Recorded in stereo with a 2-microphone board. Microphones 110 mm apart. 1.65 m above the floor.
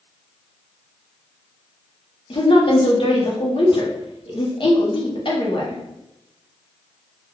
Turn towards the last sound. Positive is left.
turn(degrees=50)  # may be behind; listen again after turning